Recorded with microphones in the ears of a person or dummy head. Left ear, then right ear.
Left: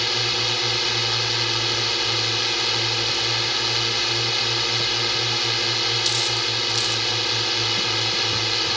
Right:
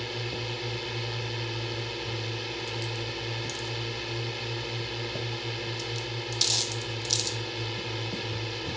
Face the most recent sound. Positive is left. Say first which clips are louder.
# left 13 dB
turn(degrees=60)  # may be behind; listen again after turning